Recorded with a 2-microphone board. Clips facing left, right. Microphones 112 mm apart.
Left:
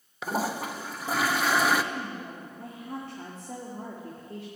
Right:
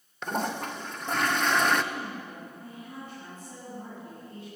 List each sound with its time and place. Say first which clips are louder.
0.2 s a toilet flushing: left 1 dB; 5° left (ahead or behind), 0.6 m
1.9 s a woman speaking: left 1 dB; 70° left (ahead or behind), 2 m